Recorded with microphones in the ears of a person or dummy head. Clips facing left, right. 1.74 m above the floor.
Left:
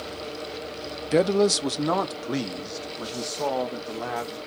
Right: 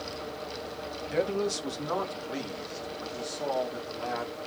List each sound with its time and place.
1.1 s a man speaking: 70° left (ahead or behind), 0.6 m; by 4.4 s 65° left (ahead or behind), 3 m